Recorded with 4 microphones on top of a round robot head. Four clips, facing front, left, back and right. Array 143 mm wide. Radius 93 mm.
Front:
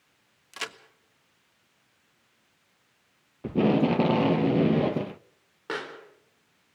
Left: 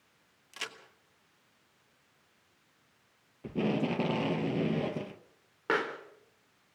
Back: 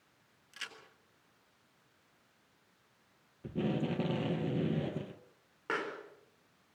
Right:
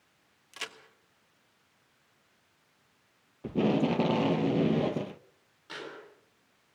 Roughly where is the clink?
I don't hear a clink.